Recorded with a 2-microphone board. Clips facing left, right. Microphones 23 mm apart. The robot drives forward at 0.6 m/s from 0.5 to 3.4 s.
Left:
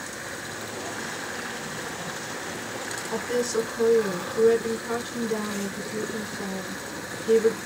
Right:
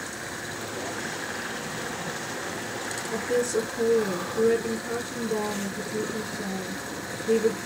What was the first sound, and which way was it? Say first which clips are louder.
A woman speaking: right 1 dB; 35° left (ahead or behind).